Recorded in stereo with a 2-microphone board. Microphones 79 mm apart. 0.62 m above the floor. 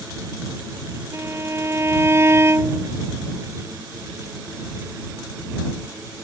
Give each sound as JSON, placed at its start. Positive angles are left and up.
{"t": 1.1, "sound": "a violin", "side_deg": -35}